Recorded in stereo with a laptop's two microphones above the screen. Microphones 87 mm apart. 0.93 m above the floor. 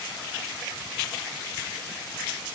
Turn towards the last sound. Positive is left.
No sound to turn to.